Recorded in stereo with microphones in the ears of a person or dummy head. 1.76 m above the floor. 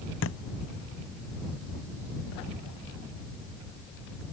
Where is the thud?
80° left.